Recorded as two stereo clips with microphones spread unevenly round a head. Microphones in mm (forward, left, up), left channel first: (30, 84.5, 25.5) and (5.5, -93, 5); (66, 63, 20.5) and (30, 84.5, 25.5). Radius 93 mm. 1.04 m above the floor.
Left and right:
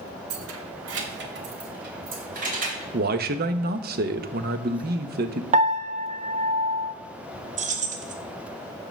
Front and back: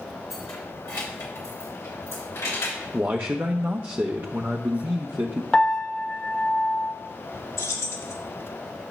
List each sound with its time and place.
0.3 s keys jangling: 105° right, 1.0 m; by 2.8 s 50° right, 3 m
2.9 s a man speaking: 140° right, 0.8 m
5.5 s a piano: 80° right, 0.8 m
7.6 s keys jangling: 45° right, 1.1 m